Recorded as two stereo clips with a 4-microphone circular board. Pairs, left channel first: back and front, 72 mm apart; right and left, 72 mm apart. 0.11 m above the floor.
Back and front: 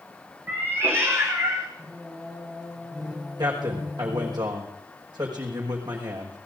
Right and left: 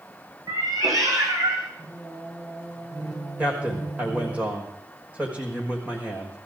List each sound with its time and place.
0.5 s a cat meowing: 65° left, 3 m; by 1.7 s 50° left, 3.5 m
1.8 s singing: 80° left, 6.5 m
3.4 s a man speaking: 20° left, 5 m